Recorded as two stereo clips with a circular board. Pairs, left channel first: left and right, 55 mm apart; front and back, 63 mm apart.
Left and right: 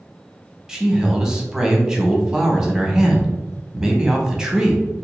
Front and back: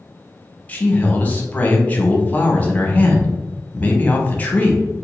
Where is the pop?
I don't hear a pop.